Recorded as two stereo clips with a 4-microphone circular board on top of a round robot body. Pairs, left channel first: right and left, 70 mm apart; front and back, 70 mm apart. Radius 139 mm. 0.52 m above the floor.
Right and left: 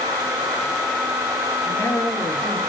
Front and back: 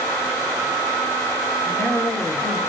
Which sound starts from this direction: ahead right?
A man speaking, at 1.6 s.